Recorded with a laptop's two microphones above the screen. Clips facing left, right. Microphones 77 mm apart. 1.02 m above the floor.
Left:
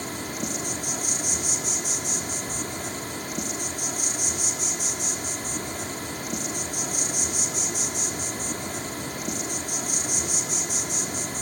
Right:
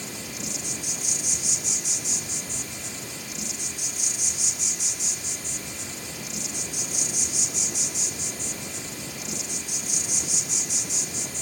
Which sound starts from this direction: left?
An insect, at 0.0 s.